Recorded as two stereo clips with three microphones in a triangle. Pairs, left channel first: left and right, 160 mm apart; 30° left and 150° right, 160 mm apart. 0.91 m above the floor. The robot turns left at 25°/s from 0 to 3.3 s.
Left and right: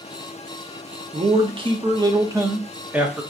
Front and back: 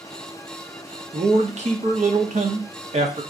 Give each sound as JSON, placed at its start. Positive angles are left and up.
{"t": 1.1, "sound": "a man speaking", "azimuth_deg": -125, "distance_m": 0.7}